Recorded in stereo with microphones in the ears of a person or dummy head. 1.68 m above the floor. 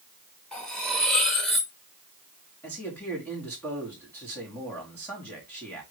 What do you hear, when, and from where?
0.5 s cutlery clinking: 5° left (ahead or behind), 1.1 m
2.6 s a man speaking: 15° left (ahead or behind), 4 m